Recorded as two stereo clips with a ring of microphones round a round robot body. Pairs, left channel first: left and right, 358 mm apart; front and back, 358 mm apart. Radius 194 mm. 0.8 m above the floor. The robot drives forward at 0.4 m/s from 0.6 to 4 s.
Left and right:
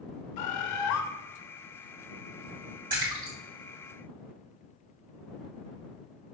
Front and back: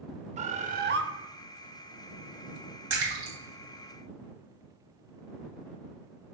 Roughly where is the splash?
Behind.